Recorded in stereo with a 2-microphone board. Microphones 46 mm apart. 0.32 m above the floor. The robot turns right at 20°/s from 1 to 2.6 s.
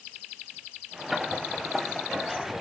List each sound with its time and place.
Only background noise.